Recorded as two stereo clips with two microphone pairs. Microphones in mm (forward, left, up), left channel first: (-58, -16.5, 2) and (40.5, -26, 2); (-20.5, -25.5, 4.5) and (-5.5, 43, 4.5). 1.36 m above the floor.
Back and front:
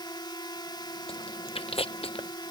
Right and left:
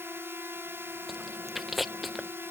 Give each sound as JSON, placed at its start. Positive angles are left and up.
{"t": 0.0, "sound": "a drone", "azimuth_deg": 130}
{"t": 1.1, "sound": "chewing", "azimuth_deg": 165}